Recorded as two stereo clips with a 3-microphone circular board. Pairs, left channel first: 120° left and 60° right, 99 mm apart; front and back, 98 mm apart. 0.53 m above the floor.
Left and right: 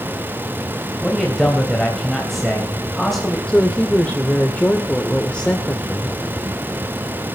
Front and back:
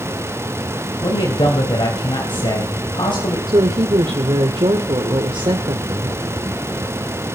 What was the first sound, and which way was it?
A man speaking, 35° left.